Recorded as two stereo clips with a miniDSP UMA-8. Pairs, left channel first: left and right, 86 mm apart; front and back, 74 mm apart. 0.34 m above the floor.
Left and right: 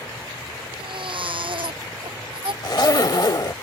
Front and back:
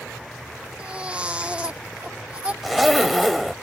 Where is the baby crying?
105° right.